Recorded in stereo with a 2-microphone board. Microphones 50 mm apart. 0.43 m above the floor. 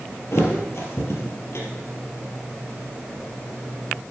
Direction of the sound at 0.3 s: 60° left (ahead or behind).